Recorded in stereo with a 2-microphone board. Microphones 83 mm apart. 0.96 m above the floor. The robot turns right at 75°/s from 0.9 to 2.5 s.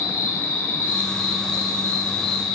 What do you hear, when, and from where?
0.0 s an insect: 145° left, 0.8 m; by 2.5 s 95° right, 0.8 m